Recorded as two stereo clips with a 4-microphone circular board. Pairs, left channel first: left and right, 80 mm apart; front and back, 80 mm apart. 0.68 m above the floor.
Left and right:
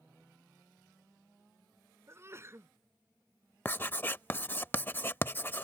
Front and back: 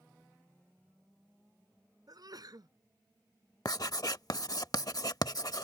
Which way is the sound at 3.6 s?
30° left.